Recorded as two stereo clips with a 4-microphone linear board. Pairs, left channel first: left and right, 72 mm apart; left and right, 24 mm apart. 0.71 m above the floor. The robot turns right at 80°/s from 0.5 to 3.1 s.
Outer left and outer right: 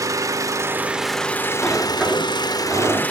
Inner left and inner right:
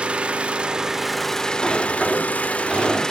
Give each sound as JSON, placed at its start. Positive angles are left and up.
{"t": 0.0, "sound": "an engine running", "azimuth_deg": -50, "distance_m": 0.8}
{"t": 1.6, "sound": "a sliding door", "azimuth_deg": 160, "distance_m": 1.8}